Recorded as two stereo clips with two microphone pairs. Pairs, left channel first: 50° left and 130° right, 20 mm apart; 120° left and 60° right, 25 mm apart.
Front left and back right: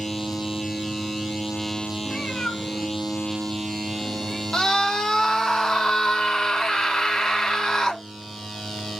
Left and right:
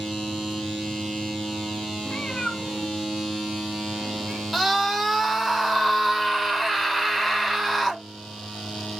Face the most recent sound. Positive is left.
turn(degrees=30)